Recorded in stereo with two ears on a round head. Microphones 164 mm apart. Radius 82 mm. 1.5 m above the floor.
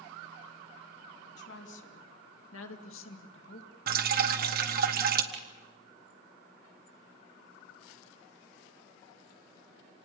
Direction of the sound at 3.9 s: 55° right (ahead or behind).